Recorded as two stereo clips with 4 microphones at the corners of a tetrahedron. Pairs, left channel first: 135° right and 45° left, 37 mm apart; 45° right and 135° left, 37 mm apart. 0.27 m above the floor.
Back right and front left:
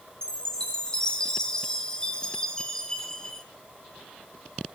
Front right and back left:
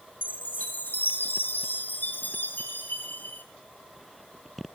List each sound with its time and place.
0.2 s a chime: 65° right, 2 m